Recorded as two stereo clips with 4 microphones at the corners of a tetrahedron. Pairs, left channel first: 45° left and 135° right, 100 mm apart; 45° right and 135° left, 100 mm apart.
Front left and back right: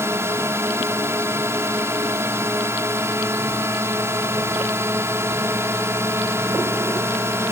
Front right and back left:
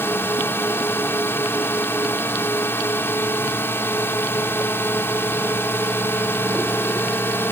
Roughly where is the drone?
Right.